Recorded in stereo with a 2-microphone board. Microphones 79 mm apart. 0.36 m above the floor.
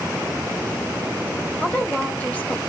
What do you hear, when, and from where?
1.6 s a woman speaking: 20° left (ahead or behind), 1.7 m